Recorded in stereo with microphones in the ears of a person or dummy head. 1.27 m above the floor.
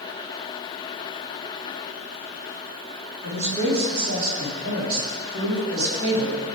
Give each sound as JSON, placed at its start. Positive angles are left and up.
{"t": 3.2, "sound": "a man speaking", "side_deg": -65, "distance_m": 8.5}